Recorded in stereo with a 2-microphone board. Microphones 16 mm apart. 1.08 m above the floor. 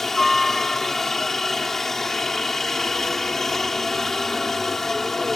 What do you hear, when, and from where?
0.0 s a helicopter: 15° left (ahead or behind)